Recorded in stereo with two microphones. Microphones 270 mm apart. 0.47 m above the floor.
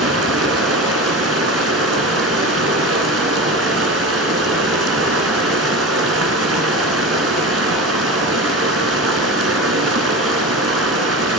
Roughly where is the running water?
Right.